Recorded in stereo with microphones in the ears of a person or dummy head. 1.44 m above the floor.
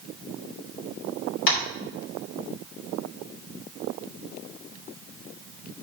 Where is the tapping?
75° left (ahead or behind), 2.5 m.